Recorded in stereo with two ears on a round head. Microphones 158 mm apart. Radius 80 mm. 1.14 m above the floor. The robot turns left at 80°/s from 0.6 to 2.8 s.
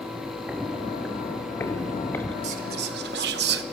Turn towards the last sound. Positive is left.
turn(degrees=-60)  # may be behind; listen again after turning